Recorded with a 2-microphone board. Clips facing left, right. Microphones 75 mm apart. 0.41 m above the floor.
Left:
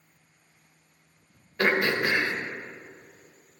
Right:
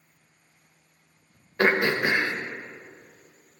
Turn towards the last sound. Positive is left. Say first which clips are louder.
# right 2 dB
turn(degrees=-25)  # may be behind; listen again after turning